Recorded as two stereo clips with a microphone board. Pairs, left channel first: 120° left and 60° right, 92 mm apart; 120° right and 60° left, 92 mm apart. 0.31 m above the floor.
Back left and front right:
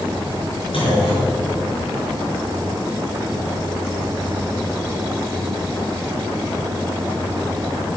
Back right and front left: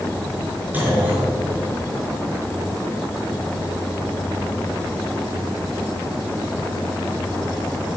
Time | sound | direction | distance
0.7 | a clunk | 130° left | 4.5 m